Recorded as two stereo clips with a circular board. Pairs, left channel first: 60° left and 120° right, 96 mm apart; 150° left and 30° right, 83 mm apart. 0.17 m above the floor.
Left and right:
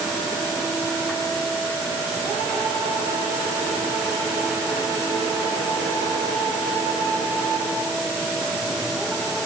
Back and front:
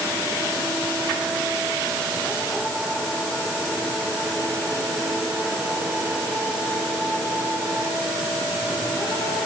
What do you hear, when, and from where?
Only background noise.